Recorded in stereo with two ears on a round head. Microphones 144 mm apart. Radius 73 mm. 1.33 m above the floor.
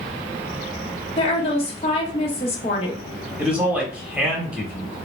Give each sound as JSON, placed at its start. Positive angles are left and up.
{"t": 1.2, "sound": "a woman speaking", "side_deg": 35, "distance_m": 0.9}
{"t": 3.4, "sound": "a man speaking", "side_deg": -10, "distance_m": 1.0}